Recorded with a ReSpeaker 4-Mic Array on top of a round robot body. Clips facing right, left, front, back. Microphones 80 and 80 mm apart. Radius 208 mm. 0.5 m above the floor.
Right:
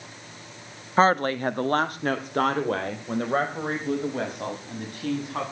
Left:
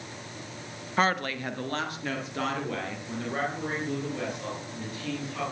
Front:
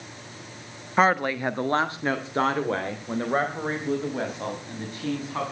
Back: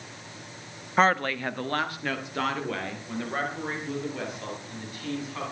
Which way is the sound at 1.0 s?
80° right.